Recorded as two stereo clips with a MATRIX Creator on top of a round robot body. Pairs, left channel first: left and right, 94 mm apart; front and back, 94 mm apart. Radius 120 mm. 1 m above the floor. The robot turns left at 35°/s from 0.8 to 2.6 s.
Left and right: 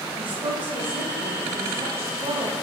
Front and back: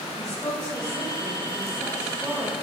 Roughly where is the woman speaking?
Ahead right.